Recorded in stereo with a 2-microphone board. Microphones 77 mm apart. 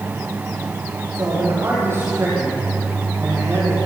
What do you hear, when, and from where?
1.1 s a man speaking: 35° right (ahead or behind), 8 m